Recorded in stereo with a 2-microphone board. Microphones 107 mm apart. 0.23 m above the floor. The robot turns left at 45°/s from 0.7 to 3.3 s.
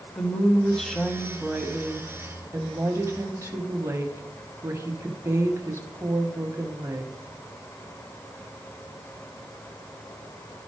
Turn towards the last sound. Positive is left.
turn(degrees=-25)  # may be behind; listen again after turning